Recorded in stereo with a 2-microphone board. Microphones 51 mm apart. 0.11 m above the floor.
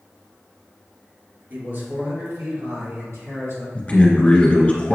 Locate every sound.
1.5 s a man speaking: 40° right (ahead or behind), 1.7 m; by 3.6 s 70° right (ahead or behind), 4 m
3.8 s a man speaking: 25° left (ahead or behind), 1.2 m